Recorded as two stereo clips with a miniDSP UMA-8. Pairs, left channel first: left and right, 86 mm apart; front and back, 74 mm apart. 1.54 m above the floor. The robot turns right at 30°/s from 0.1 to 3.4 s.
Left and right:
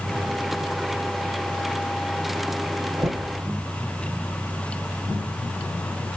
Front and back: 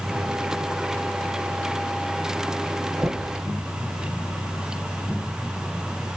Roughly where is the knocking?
Behind right.